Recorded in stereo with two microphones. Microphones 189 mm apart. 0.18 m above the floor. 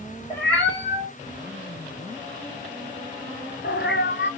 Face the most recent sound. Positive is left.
turn(degrees=65)  # may be behind; listen again after turning